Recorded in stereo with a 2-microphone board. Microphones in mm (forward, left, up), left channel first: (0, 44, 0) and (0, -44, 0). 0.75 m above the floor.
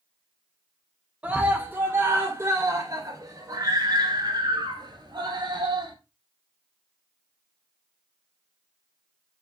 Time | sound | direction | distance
1.2 | a scream | 15° right (ahead or behind) | 1.9 m